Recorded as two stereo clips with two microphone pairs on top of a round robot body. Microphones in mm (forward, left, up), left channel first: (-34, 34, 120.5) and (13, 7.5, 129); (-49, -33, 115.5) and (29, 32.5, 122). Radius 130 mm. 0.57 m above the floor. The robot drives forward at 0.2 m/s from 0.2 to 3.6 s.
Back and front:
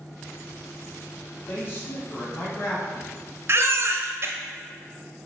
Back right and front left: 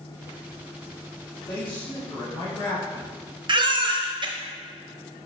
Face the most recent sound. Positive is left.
turn(degrees=10)